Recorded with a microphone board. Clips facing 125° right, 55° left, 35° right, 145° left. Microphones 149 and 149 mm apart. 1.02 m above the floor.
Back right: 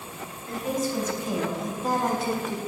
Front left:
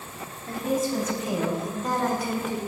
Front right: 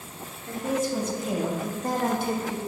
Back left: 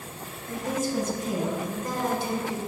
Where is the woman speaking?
Straight ahead, 2.5 m; by 2.6 s 80° right, 1.4 m.